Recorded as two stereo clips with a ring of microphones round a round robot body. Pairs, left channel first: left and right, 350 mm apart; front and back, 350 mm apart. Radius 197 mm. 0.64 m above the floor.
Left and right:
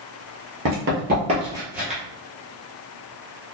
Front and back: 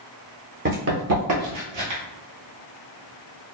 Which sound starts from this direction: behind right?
Running footsteps, at 0.7 s.